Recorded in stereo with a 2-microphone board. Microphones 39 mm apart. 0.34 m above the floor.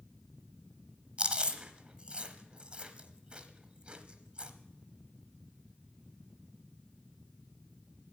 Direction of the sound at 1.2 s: 30° right (ahead or behind).